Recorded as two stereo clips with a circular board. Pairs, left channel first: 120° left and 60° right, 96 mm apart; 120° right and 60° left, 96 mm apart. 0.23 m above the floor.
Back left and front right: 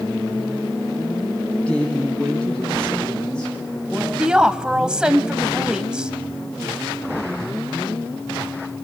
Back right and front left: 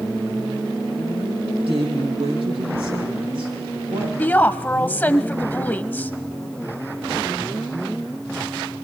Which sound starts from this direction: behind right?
A woman speaking, at 4.2 s.